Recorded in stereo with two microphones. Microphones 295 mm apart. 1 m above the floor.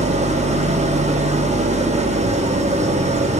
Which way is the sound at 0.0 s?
20° right (ahead or behind).